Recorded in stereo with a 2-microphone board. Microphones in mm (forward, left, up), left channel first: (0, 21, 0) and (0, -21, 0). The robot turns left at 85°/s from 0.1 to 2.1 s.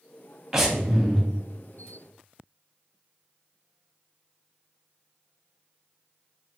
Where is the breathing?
155° right, 0.7 m; by 1.2 s 145° left, 0.7 m.